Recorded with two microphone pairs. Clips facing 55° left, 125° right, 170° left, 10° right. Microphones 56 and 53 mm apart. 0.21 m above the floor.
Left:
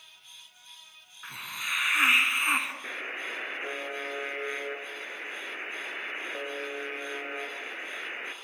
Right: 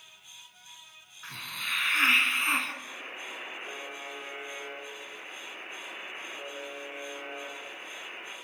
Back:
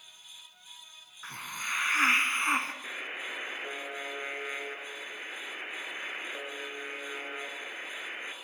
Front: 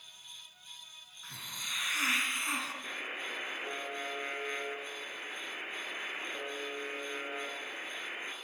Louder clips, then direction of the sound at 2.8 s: Left 5 dB, back 1 dB; 90° left.